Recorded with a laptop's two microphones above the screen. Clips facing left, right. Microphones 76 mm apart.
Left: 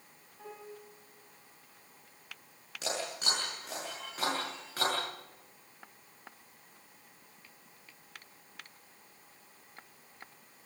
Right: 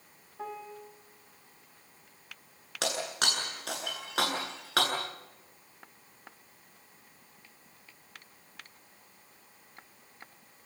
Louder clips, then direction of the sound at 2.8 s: Right 4 dB; 85° right.